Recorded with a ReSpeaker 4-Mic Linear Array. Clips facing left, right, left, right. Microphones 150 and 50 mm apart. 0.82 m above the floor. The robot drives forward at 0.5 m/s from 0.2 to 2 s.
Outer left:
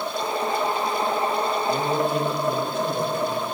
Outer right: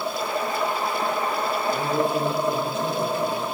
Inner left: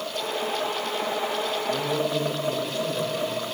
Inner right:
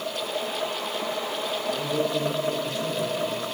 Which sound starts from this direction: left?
A man speaking, at 1.7 s.